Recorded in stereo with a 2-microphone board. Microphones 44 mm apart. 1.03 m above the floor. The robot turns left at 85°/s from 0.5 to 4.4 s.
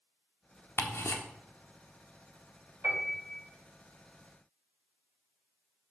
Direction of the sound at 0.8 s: 55° left (ahead or behind).